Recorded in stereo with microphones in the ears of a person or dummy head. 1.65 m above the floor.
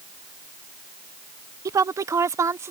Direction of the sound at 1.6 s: 15° right (ahead or behind).